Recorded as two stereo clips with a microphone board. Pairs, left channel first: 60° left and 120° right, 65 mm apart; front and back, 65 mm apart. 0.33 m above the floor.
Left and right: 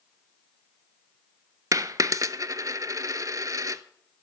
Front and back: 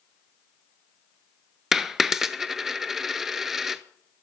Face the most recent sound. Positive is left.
turn(degrees=-95)